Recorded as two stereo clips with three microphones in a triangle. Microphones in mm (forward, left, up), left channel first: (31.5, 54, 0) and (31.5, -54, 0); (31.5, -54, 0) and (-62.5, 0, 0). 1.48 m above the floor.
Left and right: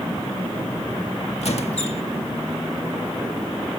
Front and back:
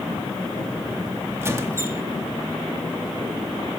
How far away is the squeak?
About 1.8 m.